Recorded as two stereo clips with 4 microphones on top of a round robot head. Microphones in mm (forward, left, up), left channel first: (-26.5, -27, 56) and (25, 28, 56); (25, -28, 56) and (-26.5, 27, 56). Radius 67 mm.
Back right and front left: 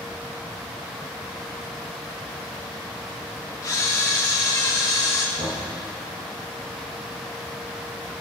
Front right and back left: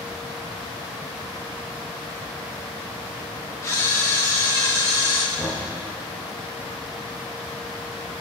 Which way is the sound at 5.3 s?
65° left.